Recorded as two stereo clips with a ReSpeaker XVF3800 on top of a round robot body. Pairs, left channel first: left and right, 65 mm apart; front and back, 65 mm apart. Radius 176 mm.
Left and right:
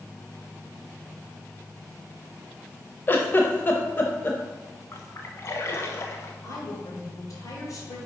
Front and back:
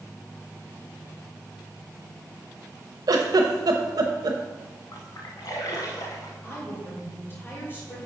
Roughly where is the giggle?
Behind left.